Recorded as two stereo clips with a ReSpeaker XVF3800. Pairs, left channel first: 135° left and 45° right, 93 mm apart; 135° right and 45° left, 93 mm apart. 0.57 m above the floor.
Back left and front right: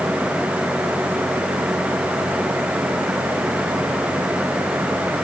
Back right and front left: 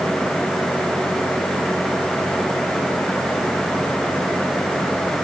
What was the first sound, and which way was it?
Only background noise.